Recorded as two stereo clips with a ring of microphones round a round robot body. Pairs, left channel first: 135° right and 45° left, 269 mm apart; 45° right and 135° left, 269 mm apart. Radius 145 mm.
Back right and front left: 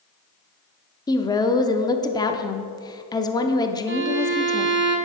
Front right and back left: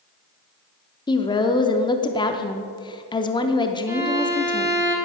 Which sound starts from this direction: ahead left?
A violin, at 3.9 s.